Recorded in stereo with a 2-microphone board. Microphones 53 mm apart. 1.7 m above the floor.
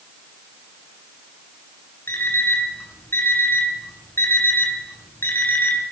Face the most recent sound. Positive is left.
turn(degrees=45)  # may be behind; listen again after turning